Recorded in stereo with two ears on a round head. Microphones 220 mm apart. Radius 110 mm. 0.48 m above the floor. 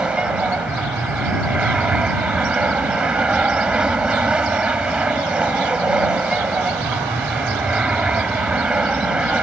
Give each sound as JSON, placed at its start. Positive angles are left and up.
{"t": 0.0, "sound": "an aircraft", "side_deg": -5}